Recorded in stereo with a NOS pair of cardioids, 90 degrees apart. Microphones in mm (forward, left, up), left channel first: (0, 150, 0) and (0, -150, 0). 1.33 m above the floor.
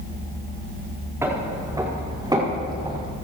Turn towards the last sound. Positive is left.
turn(degrees=-15)